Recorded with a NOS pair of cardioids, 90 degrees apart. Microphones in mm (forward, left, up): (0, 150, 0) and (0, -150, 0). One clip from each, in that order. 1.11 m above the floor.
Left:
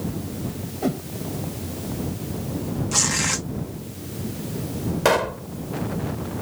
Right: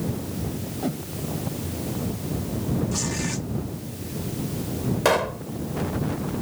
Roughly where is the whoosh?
Ahead left.